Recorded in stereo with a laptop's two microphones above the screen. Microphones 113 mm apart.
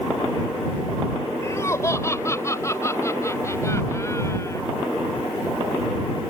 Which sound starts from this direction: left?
Laughter, at 1.4 s.